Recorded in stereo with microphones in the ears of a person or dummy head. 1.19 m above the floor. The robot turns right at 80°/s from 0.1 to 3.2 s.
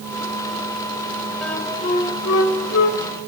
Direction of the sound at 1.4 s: Straight ahead.